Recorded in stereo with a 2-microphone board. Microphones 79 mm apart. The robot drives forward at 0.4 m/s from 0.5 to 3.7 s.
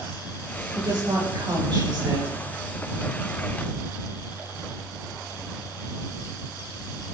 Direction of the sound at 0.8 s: 70° right (ahead or behind).